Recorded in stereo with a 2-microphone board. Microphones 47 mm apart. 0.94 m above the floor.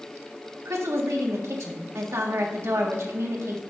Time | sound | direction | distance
0.7 | a woman speaking | 70° right (ahead or behind) | 1.6 m